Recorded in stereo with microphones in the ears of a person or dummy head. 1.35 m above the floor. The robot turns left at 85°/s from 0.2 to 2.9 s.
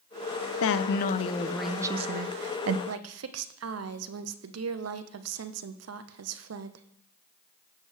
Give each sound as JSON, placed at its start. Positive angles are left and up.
{"t": 0.6, "sound": "a woman speaking", "azimuth_deg": 80, "distance_m": 0.7}
{"t": 2.9, "sound": "a woman speaking", "side_deg": -70, "distance_m": 0.9}